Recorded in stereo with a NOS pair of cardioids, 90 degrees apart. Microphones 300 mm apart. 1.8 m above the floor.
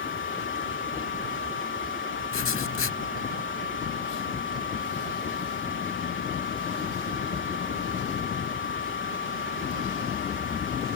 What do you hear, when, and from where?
0.0 s a fan: 40° left
2.3 s writing: 45° left